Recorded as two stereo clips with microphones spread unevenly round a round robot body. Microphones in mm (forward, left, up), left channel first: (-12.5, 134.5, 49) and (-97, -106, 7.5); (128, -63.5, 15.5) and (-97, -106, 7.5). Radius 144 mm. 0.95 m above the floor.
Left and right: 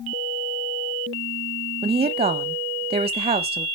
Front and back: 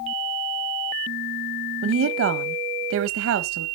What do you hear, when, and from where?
1.8 s a woman speaking: 165° right, 0.7 m